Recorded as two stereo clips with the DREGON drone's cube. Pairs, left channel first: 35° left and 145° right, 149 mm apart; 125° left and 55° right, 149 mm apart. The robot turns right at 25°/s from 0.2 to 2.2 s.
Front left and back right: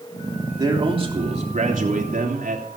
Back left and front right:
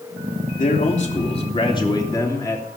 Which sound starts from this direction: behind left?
A man speaking, at 0.6 s.